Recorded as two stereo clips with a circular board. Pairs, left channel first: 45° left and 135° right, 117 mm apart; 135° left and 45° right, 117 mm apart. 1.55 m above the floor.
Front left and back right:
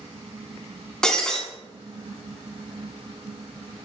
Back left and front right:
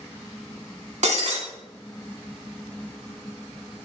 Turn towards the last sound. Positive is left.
turn(degrees=-40)